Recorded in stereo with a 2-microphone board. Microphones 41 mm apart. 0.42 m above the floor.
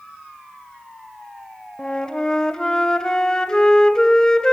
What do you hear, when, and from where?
1.8 s a flute: 20° left (ahead or behind), 1.7 m